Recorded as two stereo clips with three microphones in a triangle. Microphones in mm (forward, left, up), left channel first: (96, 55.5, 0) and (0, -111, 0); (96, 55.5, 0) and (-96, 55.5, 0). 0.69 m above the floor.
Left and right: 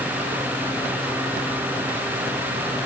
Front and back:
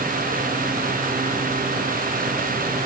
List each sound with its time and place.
Only background noise.